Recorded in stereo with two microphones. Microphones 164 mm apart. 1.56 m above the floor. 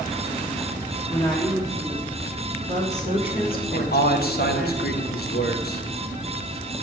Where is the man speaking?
75° left (ahead or behind), 1.4 m.